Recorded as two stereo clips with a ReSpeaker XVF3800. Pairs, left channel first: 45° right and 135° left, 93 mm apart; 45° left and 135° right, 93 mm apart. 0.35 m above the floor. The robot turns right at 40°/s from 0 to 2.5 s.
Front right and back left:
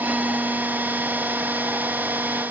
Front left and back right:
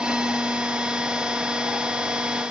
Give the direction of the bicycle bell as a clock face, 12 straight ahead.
No bicycle bell in this recording.